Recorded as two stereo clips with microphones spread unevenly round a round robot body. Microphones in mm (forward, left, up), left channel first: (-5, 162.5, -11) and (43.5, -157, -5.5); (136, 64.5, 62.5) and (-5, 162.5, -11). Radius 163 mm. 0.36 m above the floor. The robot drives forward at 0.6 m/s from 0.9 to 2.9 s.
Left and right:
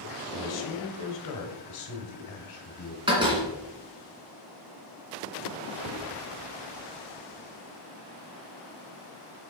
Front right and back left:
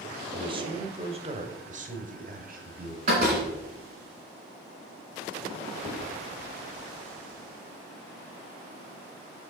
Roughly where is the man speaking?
Left.